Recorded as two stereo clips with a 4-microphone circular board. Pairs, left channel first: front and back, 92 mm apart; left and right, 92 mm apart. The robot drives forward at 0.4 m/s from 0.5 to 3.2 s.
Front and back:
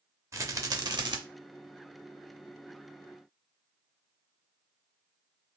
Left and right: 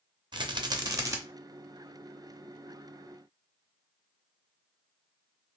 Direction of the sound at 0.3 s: 125° right.